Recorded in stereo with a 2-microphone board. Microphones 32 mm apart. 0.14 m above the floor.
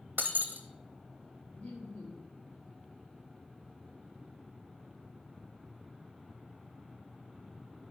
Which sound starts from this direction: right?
Breaking glass, at 0.2 s.